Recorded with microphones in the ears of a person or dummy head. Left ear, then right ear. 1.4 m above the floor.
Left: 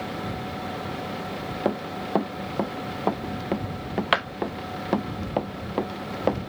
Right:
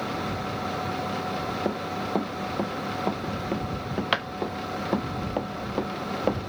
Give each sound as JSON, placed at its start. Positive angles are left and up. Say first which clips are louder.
{"t": 1.6, "sound": "running footsteps", "louder": "left 1 dB", "side_deg": 25}